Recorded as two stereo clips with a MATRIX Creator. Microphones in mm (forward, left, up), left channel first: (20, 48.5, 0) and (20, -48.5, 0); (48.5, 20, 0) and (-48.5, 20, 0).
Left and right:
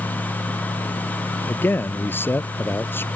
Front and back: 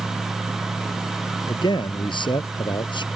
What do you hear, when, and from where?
1.5 s a man speaking: 25° left